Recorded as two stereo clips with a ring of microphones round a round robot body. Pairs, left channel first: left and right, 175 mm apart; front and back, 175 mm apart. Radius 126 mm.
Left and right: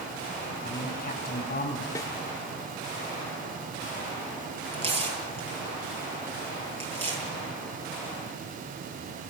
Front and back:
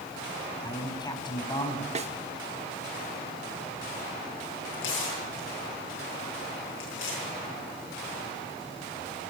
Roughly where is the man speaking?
Ahead left.